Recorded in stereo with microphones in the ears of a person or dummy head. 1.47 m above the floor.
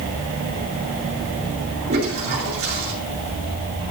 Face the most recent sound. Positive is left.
turn(degrees=-50)  # may be behind; listen again after turning